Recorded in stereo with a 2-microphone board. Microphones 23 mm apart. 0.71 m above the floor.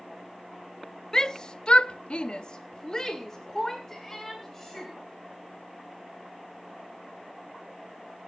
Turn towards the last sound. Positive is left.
turn(degrees=20)  # may be behind; listen again after turning